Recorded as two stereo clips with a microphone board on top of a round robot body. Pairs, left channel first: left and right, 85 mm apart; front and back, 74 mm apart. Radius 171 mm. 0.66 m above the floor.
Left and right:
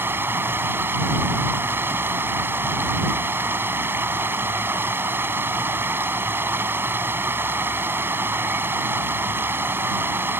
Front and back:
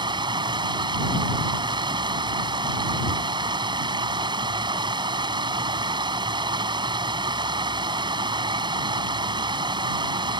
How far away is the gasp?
I don't hear a gasp.